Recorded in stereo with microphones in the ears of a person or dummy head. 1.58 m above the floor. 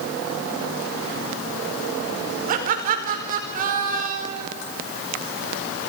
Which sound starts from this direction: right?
Laughter, at 2.5 s.